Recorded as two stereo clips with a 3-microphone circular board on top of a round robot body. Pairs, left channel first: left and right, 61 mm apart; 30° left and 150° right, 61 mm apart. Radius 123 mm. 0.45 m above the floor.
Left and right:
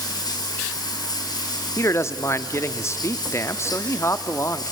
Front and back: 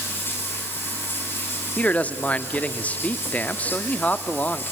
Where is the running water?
90° left, 3 m.